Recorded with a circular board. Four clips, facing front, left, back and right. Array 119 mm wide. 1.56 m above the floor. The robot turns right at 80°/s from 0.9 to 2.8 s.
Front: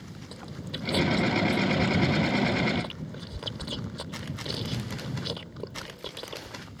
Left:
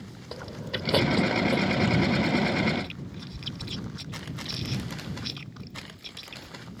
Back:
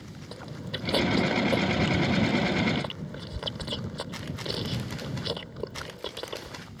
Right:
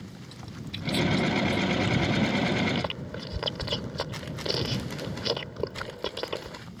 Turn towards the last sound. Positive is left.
turn(degrees=-100)